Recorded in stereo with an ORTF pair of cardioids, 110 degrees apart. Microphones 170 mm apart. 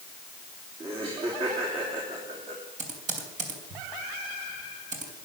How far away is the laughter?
About 3 m.